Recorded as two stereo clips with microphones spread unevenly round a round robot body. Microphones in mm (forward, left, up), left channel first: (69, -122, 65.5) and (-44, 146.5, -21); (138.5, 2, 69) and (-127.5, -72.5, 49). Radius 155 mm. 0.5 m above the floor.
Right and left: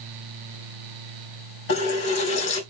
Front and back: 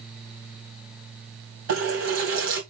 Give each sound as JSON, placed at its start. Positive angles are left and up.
{"t": 1.7, "sound": "a running tap", "azimuth_deg": -125, "distance_m": 2.5}